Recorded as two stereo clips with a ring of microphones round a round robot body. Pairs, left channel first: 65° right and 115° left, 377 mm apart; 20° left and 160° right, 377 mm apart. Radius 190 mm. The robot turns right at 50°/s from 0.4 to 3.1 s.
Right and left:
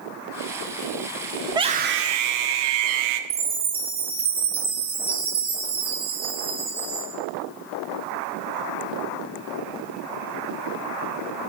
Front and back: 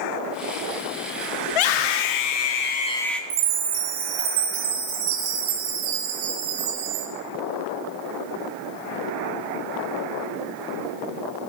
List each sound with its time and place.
1.5 s a scream: 30° left, 1.6 m; by 3.2 s 110° left, 1.6 m
3.3 s a chime: 170° right, 2.5 m